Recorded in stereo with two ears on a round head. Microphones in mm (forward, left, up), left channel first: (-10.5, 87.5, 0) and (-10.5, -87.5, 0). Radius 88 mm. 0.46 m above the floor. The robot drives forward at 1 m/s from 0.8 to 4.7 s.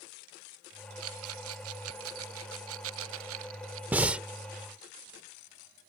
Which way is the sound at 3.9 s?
10° right (ahead or behind).